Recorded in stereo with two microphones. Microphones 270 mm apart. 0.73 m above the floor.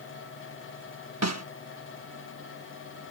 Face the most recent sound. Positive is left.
turn(degrees=-70)  # may be behind; listen again after turning